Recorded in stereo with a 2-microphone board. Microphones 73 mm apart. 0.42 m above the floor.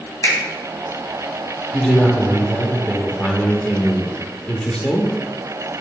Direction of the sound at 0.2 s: 65° left (ahead or behind).